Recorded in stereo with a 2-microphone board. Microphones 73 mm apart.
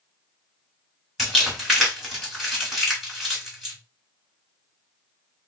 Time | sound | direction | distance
1.2 | crumpling | centre (ahead or behind) | 1.9 m